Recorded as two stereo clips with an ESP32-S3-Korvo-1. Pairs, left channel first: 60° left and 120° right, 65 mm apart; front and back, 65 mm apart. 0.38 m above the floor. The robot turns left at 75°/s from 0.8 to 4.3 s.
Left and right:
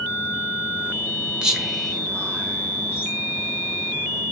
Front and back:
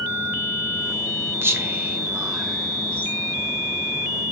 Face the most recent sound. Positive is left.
turn(degrees=-45)